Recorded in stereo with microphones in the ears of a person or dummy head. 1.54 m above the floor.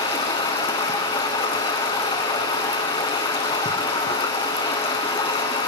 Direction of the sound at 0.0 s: 20° left (ahead or behind).